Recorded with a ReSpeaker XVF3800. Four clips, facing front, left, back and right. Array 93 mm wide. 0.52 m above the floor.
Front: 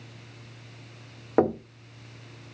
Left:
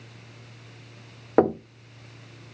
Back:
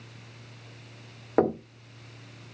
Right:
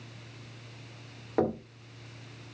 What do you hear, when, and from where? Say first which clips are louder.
1.4 s knocking: left 8 dB, front 1 dB; 80° left, 1.2 m